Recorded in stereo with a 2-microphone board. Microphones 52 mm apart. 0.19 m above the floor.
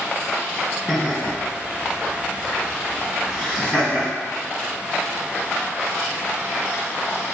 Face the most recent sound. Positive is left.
turn(degrees=0)  # may be behind; listen again after turning